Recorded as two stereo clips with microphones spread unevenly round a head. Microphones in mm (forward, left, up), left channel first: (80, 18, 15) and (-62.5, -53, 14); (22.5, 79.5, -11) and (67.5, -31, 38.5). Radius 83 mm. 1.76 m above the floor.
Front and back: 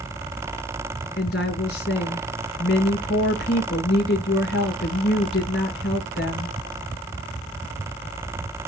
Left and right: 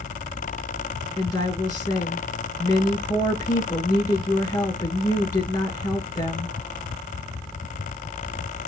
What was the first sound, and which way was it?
A woman speaking, 60° left.